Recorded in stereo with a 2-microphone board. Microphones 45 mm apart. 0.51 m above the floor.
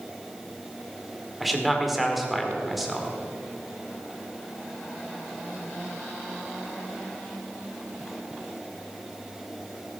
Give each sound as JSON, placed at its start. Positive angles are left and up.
{"t": 1.4, "sound": "a man speaking", "side_deg": 0, "distance_m": 1.9}